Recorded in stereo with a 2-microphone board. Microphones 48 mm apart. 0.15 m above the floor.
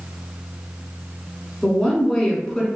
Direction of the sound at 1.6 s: 5° left (ahead or behind).